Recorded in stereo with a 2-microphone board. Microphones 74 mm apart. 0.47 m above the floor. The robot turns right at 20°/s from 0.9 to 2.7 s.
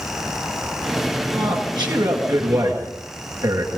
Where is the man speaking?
80° right, 8.5 m; by 3.8 s 55° right (ahead or behind), 8.5 m.